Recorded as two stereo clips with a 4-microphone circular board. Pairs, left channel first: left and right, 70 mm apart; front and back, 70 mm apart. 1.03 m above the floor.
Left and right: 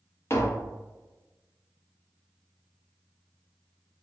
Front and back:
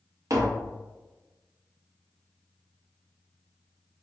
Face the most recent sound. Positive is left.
turn(degrees=145)